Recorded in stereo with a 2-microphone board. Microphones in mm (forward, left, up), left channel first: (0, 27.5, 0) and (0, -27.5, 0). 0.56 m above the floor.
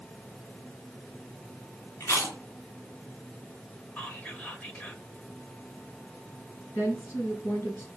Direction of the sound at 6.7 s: 50° left (ahead or behind).